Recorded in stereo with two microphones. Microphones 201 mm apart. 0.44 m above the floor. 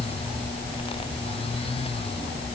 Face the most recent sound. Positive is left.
No sound to turn to.